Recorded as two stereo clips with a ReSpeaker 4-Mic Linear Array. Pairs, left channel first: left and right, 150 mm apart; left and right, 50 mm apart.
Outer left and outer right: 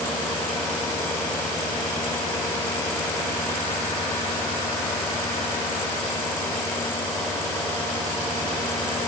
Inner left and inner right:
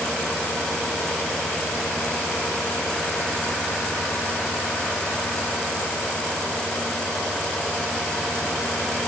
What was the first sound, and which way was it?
Only background noise.